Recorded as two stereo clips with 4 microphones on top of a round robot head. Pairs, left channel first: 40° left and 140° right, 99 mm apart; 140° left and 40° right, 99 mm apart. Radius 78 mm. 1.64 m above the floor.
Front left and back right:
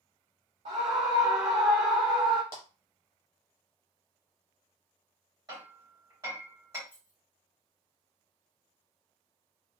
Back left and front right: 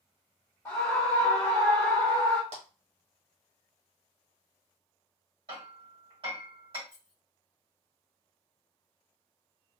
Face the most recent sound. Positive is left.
turn(degrees=-70)